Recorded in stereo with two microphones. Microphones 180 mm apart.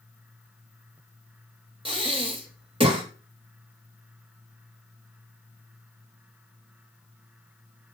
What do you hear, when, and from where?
1.9 s breathing: 30° right (ahead or behind), 1.3 m